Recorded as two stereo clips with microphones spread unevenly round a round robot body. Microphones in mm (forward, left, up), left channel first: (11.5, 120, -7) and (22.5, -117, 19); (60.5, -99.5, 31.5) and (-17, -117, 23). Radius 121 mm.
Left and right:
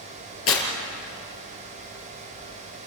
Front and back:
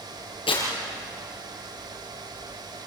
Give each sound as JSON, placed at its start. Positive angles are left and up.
{"t": 0.5, "sound": "tearing paper", "azimuth_deg": 60, "distance_m": 5.0}